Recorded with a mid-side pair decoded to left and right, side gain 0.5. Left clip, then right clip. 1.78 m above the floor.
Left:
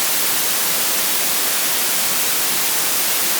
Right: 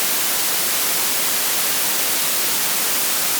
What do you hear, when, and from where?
Only background noise.